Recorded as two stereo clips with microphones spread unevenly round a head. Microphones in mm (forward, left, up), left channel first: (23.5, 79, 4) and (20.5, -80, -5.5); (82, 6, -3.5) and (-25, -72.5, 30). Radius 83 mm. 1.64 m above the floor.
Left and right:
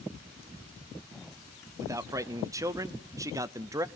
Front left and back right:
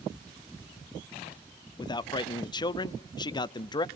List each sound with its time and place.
1.8 s a man speaking: 20° right, 0.6 m